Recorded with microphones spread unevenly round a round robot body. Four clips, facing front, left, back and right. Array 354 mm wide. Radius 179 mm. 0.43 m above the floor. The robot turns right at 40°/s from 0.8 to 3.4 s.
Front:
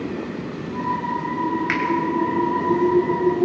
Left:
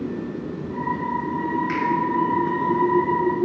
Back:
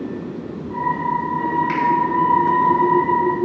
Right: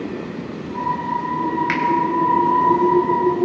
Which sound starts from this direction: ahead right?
A finger snap, at 1.7 s.